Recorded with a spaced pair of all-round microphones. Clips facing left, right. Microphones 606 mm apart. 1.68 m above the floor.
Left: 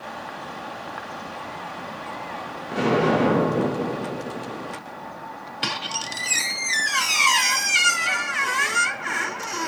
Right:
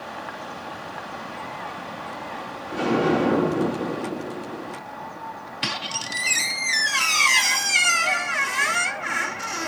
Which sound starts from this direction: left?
An explosion, at 2.7 s.